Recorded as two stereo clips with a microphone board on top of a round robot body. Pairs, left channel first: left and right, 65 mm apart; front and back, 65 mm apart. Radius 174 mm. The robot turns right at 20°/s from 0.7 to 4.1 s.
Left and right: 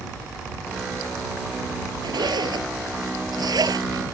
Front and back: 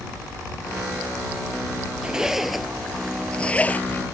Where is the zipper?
100° right; by 4.0 s 60° right.